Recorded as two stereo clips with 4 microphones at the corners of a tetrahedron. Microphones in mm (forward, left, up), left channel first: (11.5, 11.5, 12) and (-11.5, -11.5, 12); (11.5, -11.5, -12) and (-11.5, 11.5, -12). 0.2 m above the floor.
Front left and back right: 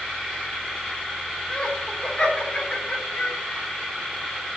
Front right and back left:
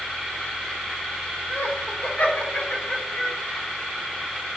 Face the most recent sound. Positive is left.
turn(degrees=10)